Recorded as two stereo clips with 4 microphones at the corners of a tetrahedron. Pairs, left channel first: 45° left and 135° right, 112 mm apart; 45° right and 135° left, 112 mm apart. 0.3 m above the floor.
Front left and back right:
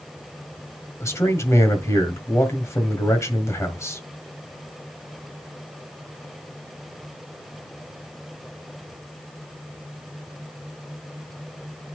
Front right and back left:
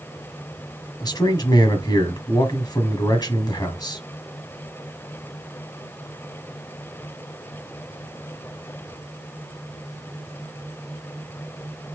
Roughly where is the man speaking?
Ahead.